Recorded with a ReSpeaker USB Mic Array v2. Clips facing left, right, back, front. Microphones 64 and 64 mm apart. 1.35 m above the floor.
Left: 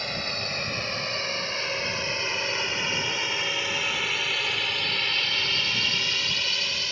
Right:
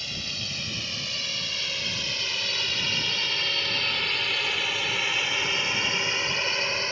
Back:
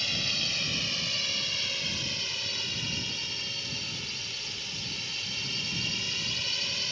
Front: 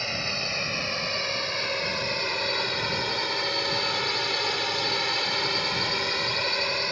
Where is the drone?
50° left; by 6.9 s 35° right.